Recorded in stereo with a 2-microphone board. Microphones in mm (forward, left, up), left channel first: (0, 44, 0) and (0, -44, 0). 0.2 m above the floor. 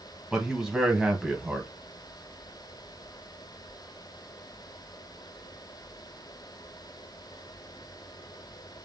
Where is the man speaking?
5° right (ahead or behind), 1.0 m.